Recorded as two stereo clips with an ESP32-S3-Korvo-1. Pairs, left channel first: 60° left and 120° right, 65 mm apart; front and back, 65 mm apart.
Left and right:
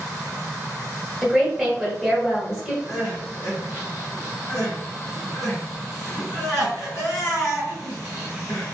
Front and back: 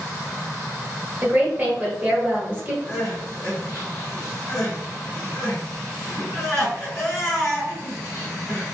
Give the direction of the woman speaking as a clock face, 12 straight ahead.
6 o'clock.